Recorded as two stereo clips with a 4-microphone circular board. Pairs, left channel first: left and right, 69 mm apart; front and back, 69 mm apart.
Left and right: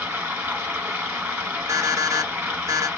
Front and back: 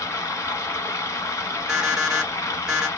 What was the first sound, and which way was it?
Running water, 25° right.